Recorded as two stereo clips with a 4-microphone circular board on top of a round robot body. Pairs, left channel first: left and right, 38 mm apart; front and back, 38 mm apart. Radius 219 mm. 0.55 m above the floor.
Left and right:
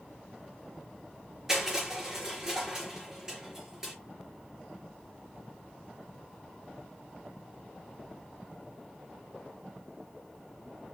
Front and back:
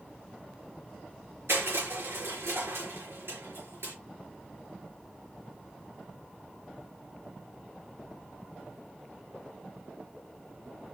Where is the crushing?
170° right, 4.5 m.